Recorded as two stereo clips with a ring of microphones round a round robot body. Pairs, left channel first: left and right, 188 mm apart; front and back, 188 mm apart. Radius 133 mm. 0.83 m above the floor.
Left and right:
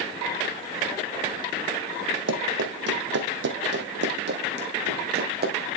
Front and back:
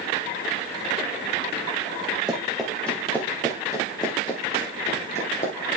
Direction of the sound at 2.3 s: 95° right.